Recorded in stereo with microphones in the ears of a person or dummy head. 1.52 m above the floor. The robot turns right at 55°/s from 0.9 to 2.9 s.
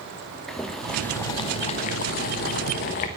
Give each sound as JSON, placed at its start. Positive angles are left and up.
{"t": 0.5, "sound": "boiling", "azimuth_deg": 5, "distance_m": 1.0}